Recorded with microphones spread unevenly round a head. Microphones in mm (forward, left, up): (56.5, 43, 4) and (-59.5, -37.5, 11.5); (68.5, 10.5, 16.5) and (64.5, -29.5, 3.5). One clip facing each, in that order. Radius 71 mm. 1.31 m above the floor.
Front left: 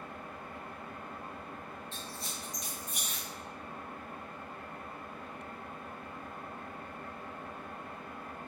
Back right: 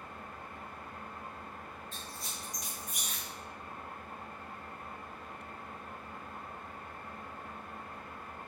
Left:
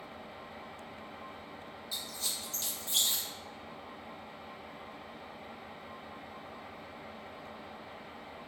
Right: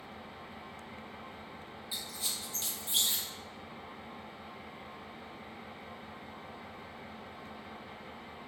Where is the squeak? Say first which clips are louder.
Front left 2 dB, even; 10° right, 0.6 m.